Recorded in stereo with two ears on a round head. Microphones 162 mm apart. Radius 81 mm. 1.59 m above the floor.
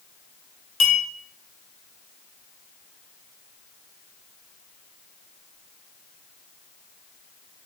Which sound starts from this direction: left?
A clink, at 0.8 s.